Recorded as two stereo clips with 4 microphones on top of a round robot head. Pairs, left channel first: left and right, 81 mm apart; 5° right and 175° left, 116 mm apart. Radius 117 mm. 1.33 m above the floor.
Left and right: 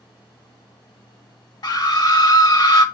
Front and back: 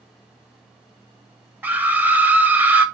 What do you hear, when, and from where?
1.6 s a scream: 105° left, 1.1 m